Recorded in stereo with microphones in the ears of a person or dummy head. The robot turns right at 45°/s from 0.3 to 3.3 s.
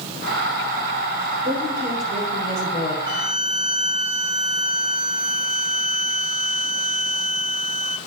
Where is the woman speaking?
30° right, 2.5 m; by 3.0 s 40° left, 2.5 m.